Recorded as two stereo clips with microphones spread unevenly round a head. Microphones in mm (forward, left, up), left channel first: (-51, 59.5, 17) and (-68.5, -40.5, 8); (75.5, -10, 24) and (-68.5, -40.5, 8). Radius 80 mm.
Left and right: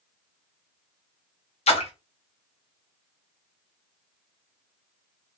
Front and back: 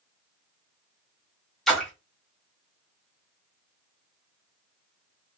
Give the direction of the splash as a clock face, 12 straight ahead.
9 o'clock.